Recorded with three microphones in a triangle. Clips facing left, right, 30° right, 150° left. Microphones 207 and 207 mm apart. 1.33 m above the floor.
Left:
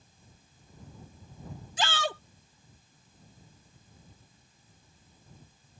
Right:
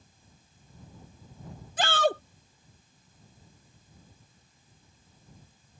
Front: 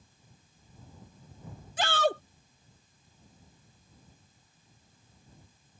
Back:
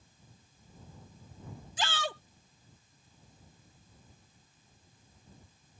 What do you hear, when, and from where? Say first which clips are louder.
1.8 s a shout: right 7 dB, front 9 dB; 55° right